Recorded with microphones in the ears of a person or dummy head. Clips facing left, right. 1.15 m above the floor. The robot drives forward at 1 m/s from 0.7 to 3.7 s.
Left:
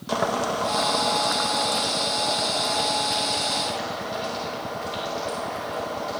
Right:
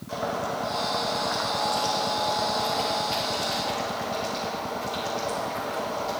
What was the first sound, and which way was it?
Boiling, 85° left.